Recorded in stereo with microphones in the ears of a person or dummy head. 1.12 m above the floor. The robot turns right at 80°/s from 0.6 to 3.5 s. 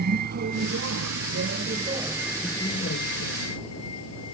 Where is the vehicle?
60° right (ahead or behind); by 4.3 s 80° left.